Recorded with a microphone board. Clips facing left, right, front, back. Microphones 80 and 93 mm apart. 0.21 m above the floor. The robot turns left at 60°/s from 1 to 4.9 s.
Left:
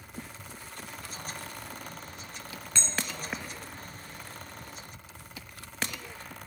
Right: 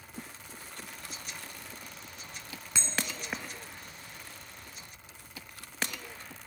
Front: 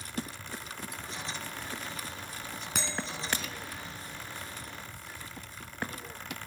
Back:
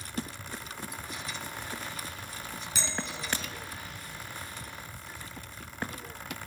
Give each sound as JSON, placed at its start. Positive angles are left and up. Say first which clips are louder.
{"t": 2.8, "sound": "a bell", "louder": "even, front 1 dB", "azimuth_deg": -10, "distance_m": 1.0}